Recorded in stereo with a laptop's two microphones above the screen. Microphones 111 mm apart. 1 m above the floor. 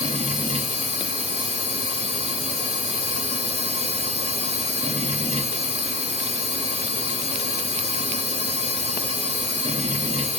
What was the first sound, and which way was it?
A machine running, 85° right.